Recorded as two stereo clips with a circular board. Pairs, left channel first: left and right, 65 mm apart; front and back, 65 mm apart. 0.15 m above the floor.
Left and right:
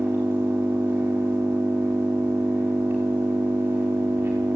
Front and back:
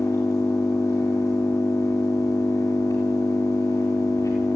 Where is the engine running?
25° right, 7.5 m.